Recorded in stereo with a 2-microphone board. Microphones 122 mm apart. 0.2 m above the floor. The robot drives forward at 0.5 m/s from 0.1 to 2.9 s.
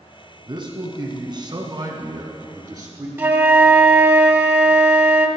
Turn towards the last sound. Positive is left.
turn(degrees=-20)  # may be behind; listen again after turning